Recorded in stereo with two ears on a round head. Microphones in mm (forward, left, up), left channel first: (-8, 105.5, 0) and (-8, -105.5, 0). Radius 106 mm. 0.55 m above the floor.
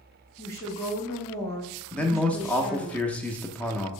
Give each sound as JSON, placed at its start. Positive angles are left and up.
{"t": 0.4, "sound": "a woman speaking", "side_deg": 10, "distance_m": 0.9}
{"t": 1.9, "sound": "a man speaking", "side_deg": 5, "distance_m": 0.6}